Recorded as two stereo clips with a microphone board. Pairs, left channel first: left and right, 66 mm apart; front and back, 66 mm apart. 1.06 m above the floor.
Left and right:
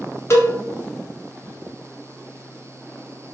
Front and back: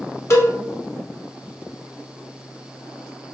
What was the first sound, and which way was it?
A cowbell, 40° left.